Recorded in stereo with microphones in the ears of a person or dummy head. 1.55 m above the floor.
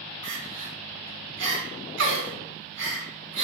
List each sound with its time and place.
0.2 s crying: 65° right (ahead or behind), 3 m